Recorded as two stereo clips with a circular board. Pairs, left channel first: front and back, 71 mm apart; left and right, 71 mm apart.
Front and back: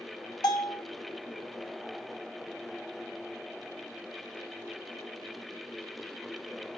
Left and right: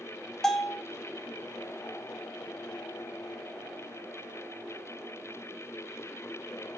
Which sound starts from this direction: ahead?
A bell, at 0.4 s.